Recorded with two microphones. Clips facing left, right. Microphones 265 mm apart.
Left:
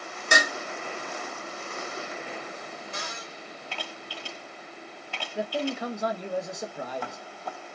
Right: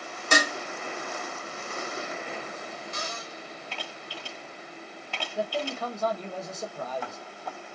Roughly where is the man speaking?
Centre.